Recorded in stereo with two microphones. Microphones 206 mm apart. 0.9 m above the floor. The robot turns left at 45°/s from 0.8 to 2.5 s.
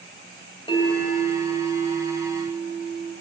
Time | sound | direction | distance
0.7 | a bell | 20° left | 2.5 m